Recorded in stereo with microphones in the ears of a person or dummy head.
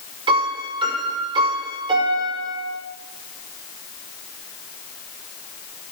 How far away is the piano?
About 5.5 m.